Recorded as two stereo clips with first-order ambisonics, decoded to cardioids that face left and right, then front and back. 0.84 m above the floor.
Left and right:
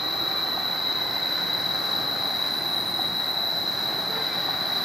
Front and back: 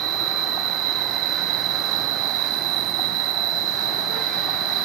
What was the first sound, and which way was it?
An insect, 175° left.